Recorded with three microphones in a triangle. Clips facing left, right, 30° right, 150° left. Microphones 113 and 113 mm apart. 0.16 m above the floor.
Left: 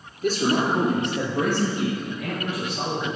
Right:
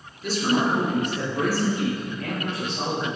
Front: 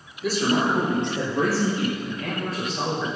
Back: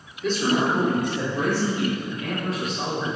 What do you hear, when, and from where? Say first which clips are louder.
0.2 s a man speaking: left 1 dB, even; 55° left, 2.5 m; by 3.1 s 10° left, 5.5 m